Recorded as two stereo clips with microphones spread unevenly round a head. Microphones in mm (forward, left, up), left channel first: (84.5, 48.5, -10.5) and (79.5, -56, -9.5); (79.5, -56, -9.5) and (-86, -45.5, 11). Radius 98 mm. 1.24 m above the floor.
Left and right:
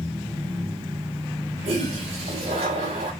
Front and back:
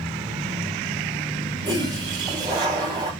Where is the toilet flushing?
120° right, 3 m.